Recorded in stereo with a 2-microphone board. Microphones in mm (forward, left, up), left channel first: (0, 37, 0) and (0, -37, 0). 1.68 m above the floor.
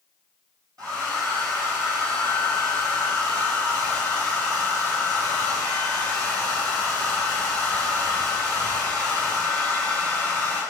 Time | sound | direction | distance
0.8 | a hair dryer | 55° right (ahead or behind) | 5 m